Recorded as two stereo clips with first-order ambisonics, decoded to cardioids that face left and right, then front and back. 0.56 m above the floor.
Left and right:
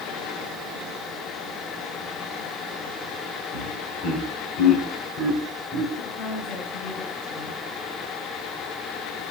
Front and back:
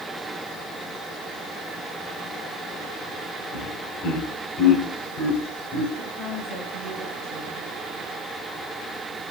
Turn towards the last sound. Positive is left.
turn(degrees=80)